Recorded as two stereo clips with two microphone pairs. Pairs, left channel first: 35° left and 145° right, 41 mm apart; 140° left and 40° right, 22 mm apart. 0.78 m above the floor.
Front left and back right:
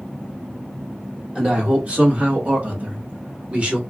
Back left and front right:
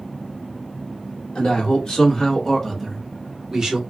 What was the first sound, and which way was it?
A man speaking, 160° left.